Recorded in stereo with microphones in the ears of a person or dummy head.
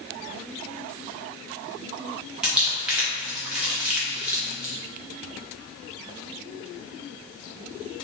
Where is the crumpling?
Centre (ahead or behind), 0.8 m.